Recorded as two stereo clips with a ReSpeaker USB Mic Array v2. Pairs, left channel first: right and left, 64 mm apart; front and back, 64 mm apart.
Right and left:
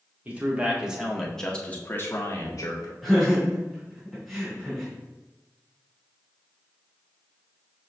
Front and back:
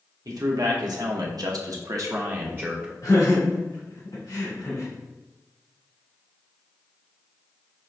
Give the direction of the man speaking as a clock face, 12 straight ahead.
7 o'clock.